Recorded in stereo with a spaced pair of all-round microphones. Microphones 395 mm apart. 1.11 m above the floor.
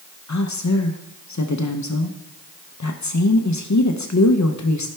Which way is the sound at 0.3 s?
45° left (ahead or behind).